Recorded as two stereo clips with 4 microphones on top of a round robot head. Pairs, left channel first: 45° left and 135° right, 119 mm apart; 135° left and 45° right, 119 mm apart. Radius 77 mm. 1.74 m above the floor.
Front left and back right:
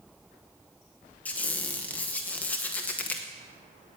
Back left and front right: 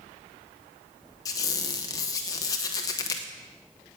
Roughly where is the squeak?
Behind left.